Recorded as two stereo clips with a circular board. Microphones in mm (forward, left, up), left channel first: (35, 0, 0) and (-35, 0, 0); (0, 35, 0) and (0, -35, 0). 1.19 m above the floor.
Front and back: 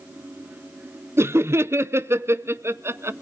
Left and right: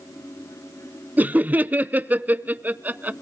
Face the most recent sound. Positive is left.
turn(degrees=-145)